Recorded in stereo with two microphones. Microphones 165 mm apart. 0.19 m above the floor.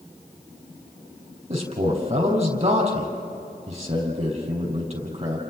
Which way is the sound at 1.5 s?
35° right (ahead or behind).